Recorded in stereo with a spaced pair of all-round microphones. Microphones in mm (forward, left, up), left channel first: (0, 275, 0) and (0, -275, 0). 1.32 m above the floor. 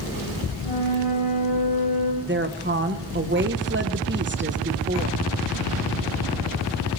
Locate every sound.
0.6 s a flute: 85° left, 4 m
2.2 s a woman speaking: 20° right (ahead or behind), 1.1 m